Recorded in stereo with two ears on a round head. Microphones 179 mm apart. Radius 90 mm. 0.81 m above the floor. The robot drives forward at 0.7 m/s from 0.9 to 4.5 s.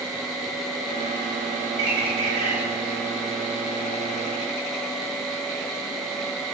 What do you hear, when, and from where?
1.8 s a bird: 65° right (ahead or behind), 2.5 m; by 2.6 s 75° right (ahead or behind), 2.5 m